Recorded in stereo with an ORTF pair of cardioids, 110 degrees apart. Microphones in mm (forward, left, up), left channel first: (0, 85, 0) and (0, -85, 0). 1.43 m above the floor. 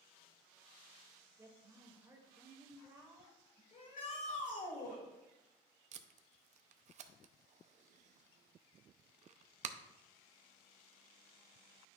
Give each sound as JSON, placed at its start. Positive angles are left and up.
{"t": 1.4, "sound": "a woman speaking", "azimuth_deg": -15, "distance_m": 2.0}
{"t": 3.7, "sound": "a shout", "azimuth_deg": 45, "distance_m": 3.5}
{"t": 5.9, "sound": "tape being pulled", "azimuth_deg": -45, "distance_m": 0.6}